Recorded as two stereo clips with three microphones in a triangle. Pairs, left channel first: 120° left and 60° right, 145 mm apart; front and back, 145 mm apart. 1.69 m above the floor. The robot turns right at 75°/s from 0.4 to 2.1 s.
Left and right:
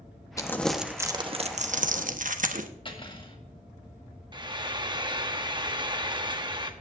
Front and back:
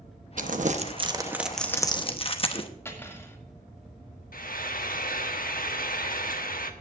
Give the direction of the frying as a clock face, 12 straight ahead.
12 o'clock.